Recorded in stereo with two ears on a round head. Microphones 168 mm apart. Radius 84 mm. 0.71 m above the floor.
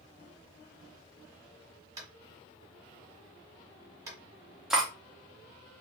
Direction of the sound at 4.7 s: Centre (ahead or behind).